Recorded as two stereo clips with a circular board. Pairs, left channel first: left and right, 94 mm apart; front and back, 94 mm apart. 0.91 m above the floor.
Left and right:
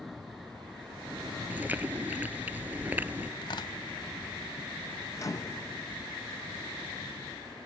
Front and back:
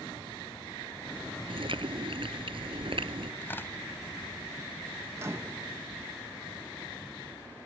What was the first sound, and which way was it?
Chewing, 160° right.